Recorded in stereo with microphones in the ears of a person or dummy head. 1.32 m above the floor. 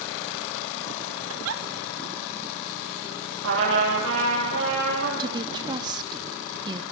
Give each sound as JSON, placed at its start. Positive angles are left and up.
{"t": 1.3, "sound": "a giggle", "side_deg": -70, "distance_m": 1.2}
{"t": 3.4, "sound": "a trumpet", "side_deg": -70, "distance_m": 8.0}
{"t": 5.2, "sound": "a woman speaking", "side_deg": -25, "distance_m": 1.5}